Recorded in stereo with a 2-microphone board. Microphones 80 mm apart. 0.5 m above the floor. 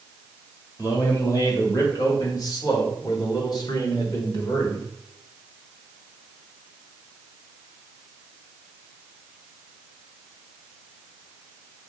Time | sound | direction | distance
0.8 | a man speaking | 35° left (ahead or behind) | 2.5 m